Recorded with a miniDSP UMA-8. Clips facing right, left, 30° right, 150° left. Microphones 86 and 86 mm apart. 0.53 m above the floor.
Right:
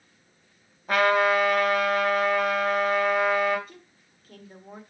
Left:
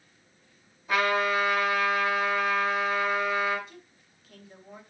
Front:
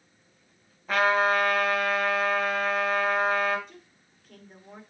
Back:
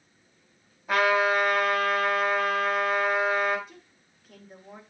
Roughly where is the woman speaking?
Behind right.